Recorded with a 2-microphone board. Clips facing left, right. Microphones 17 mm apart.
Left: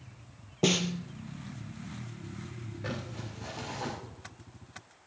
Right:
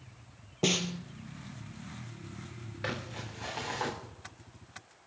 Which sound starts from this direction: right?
Crumpling, at 2.8 s.